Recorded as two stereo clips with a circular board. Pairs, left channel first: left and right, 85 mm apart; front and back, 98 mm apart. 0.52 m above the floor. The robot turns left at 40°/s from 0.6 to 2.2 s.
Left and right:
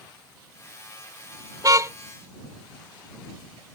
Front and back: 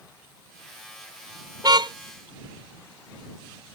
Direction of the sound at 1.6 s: 135° right.